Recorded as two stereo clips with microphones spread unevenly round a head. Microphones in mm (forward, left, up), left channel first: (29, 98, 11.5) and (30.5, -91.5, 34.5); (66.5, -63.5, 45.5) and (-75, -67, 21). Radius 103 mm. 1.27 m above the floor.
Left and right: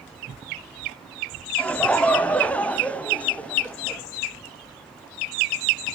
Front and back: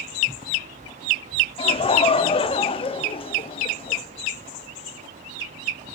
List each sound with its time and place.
1.6 s laughter: 25° left, 0.6 m